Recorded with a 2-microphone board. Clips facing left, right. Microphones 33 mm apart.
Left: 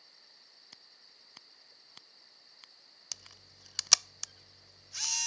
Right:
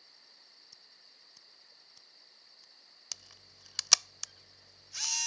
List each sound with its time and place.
0.7 s scissors: 65° left (ahead or behind)
3.1 s a camera shutter: centre (ahead or behind)